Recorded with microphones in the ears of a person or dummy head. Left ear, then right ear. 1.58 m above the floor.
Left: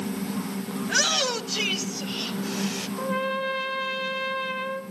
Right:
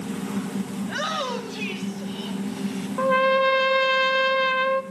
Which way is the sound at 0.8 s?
80° left.